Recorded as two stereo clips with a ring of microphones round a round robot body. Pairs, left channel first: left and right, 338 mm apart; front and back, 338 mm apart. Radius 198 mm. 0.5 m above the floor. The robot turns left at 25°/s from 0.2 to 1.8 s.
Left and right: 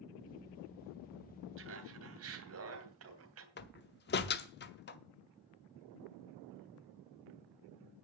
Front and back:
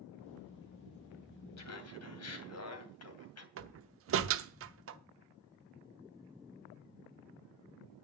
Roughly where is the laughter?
Ahead right.